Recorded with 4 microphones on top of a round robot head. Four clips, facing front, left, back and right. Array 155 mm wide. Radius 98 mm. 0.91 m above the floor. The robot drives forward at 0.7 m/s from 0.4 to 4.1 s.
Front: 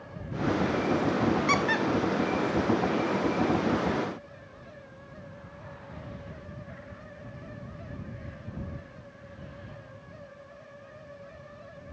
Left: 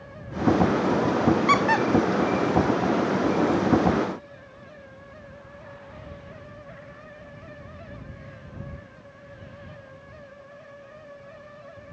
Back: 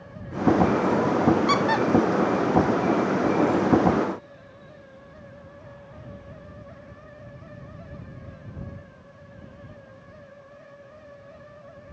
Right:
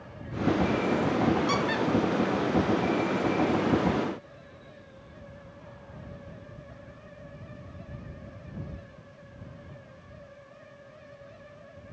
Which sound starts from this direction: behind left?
A squeak, at 1.5 s.